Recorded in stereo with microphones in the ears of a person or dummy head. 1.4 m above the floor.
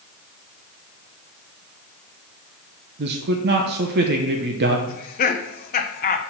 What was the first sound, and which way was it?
A man speaking, 55° right (ahead or behind).